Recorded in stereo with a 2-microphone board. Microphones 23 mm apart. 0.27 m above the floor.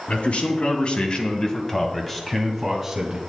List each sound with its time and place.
0.1 s a man speaking: 60° left (ahead or behind), 2 m; by 3.2 s 20° right (ahead or behind), 2 m